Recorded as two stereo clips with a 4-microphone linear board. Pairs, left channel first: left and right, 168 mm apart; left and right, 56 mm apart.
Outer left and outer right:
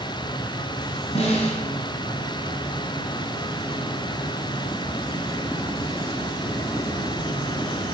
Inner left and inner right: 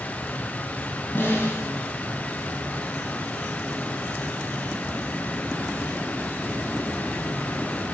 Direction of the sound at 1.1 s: 40° left (ahead or behind).